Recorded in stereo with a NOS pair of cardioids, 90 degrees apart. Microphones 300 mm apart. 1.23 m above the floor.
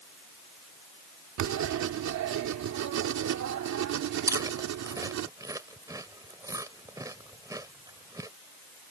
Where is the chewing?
10° right.